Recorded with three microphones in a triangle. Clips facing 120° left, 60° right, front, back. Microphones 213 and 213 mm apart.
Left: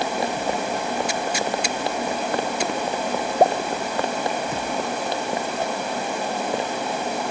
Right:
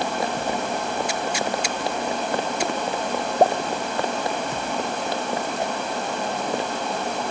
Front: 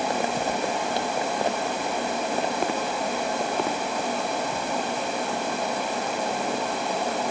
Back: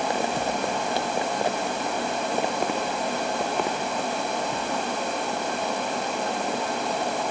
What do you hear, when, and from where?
Only background noise.